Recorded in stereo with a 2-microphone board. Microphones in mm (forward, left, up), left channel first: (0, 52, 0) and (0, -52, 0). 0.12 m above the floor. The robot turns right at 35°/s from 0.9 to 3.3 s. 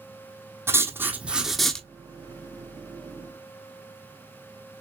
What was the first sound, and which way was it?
Writing, 25° right.